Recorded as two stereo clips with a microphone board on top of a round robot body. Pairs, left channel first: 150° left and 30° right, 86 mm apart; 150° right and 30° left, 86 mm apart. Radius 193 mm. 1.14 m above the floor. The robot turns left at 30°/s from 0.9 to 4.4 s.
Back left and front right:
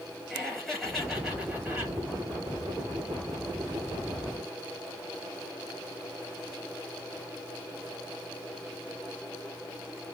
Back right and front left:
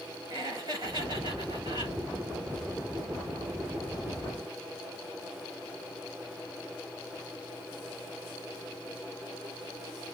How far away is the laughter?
About 5 m.